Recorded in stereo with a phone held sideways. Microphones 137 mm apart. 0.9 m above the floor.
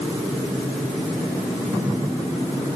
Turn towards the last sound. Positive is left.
No sound to turn to.